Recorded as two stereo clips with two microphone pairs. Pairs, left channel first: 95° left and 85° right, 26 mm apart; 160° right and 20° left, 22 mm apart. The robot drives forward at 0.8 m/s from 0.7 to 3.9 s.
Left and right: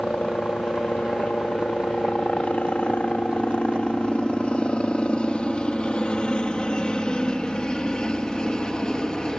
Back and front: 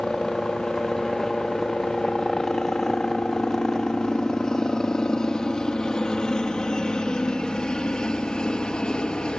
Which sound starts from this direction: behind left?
A helicopter, at 0.0 s.